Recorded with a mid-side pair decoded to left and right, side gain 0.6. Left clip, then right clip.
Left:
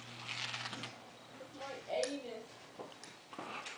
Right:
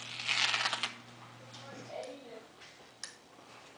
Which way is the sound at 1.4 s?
45° left.